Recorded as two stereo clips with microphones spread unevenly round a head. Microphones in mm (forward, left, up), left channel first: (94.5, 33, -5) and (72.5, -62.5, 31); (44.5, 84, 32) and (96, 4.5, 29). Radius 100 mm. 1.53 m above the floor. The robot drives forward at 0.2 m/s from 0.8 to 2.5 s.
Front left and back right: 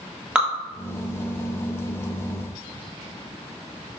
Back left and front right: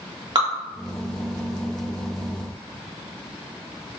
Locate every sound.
0.3 s dripping: 45° right, 0.8 m